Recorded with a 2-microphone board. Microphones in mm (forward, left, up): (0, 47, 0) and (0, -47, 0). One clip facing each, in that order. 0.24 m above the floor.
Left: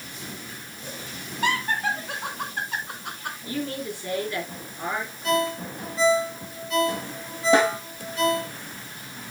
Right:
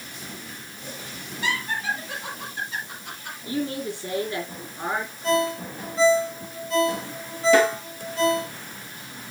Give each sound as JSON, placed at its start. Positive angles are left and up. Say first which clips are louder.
{"t": 1.4, "sound": "laughter", "louder": "left 3 dB", "side_deg": 50, "distance_m": 2.5}
{"t": 3.5, "sound": "a man speaking", "louder": "right 3 dB", "side_deg": -30, "distance_m": 5.0}
{"t": 5.2, "sound": "a ringtone", "louder": "right 1 dB", "side_deg": -30, "distance_m": 3.0}
{"t": 7.5, "sound": "a snare drum", "louder": "right 1 dB", "side_deg": 25, "distance_m": 5.0}